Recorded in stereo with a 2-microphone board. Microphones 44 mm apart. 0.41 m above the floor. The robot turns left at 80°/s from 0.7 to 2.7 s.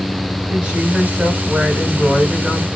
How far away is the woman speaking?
About 2.5 m.